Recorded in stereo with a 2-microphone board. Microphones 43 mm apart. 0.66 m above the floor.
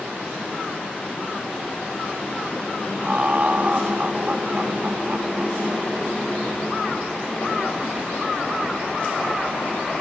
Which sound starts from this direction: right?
Laughter, at 3.0 s.